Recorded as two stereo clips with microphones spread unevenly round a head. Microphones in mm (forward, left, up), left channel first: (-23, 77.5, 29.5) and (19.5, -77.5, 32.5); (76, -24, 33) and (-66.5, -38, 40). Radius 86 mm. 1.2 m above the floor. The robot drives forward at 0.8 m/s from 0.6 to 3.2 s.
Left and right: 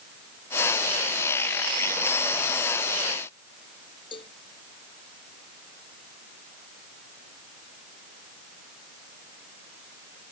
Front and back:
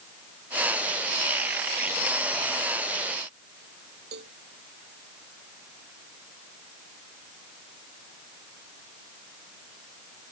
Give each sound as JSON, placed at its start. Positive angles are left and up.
{"t": 4.1, "sound": "a cowbell", "azimuth_deg": 165}